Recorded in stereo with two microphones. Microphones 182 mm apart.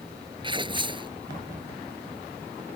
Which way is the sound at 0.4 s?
25° right (ahead or behind).